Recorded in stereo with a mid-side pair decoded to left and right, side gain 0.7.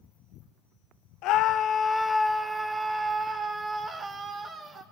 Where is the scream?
65° left, 0.7 m; by 4.8 s 35° right, 2.5 m.